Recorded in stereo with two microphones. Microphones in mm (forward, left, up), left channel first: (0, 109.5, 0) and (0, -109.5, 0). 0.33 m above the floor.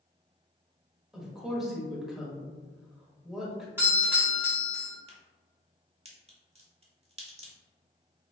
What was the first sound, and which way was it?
A woman speaking, centre (ahead or behind).